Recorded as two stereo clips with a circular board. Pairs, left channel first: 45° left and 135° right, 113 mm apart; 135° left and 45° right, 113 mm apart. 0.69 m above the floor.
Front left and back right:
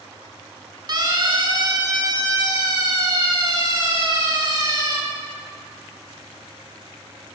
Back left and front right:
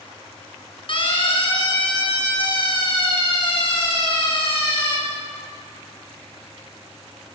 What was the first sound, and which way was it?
A siren, 175° left.